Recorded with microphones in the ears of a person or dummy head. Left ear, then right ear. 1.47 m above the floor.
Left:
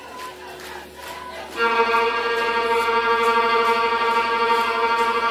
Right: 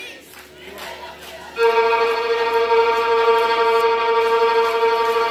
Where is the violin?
Centre (ahead or behind), 1.1 m.